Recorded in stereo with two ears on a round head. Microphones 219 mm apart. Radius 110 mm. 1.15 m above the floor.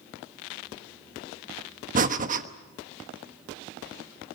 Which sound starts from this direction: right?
Breathing, at 1.9 s.